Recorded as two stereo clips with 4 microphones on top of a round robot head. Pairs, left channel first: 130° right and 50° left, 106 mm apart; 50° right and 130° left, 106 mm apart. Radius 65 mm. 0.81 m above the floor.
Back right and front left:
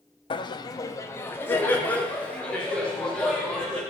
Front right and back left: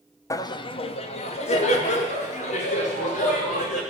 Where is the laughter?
105° right, 0.6 m; by 3.8 s 45° right, 3 m.